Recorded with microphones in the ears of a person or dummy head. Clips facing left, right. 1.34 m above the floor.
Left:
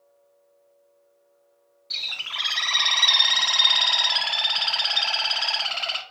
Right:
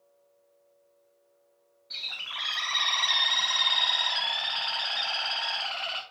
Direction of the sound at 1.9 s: 50° left (ahead or behind).